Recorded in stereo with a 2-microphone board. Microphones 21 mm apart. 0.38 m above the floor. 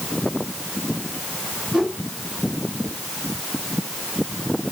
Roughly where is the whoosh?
Right.